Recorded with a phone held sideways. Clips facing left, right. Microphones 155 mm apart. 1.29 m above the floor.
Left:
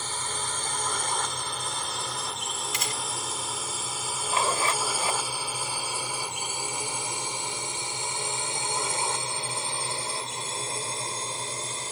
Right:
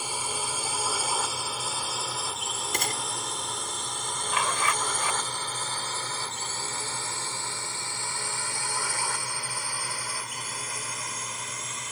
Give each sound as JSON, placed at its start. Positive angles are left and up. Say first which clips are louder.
{"t": 0.0, "sound": "a drone", "louder": "right 1 dB", "side_deg": -10}
{"t": 2.7, "sound": "a gunshot", "louder": "right 5 dB", "side_deg": -55}
{"t": 4.3, "sound": "a zipper", "louder": "left 2 dB", "side_deg": 30}